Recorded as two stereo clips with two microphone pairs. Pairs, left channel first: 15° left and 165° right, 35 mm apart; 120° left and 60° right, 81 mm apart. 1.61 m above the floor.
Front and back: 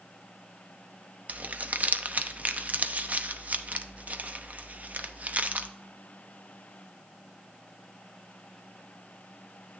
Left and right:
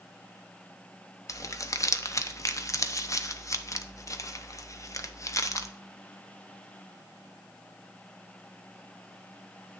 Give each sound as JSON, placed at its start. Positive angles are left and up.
{"t": 1.3, "sound": "crumpling", "azimuth_deg": 165, "distance_m": 0.5}